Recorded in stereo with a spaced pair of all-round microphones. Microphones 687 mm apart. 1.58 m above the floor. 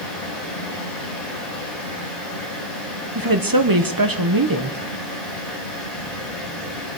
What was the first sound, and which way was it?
A fan, 70° left (ahead or behind).